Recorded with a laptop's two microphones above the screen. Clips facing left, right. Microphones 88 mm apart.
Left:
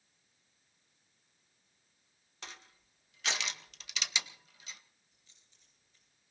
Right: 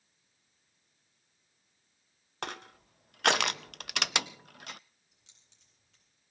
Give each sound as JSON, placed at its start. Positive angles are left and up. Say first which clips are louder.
{"t": 2.4, "sound": "crushing", "louder": "right 12 dB", "side_deg": -60, "distance_m": 0.5}
{"t": 5.1, "sound": "keys jangling", "louder": "right 1 dB", "side_deg": -90, "distance_m": 8.5}